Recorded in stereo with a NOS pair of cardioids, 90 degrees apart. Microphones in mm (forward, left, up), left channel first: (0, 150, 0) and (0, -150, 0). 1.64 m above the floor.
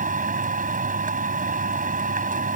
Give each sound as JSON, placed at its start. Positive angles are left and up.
{"t": 0.0, "sound": "a machine running", "azimuth_deg": -25}